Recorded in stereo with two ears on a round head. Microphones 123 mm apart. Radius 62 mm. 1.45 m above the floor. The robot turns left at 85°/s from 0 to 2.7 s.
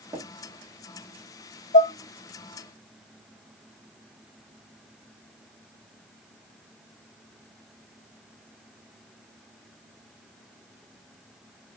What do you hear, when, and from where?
0.1 s tapping: 20° right (ahead or behind), 1.1 m; by 0.3 s 30° right (ahead or behind), 1.1 m
1.7 s dishes clattering: 70° left (ahead or behind), 1.8 m; by 1.9 s 60° left (ahead or behind), 1.8 m